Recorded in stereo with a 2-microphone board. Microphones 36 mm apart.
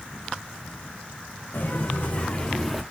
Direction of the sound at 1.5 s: 60° left (ahead or behind).